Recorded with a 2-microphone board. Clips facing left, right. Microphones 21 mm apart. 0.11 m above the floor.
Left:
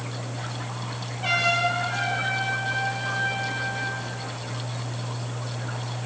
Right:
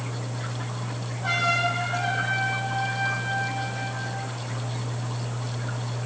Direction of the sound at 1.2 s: 60° left (ahead or behind).